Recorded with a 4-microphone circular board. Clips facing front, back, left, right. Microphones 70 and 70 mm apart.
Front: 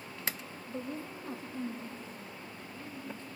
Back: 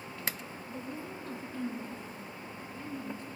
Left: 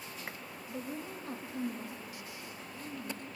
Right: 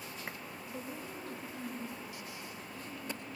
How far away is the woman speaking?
About 1.4 m.